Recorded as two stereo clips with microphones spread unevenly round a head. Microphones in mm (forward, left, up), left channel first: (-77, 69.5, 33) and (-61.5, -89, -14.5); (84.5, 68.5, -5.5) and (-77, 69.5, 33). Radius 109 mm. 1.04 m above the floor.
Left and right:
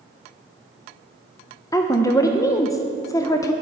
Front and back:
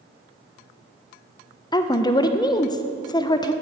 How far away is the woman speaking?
About 0.6 m.